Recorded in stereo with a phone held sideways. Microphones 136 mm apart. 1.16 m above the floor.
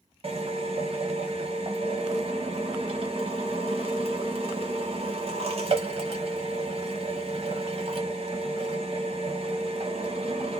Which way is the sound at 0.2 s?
50° right (ahead or behind).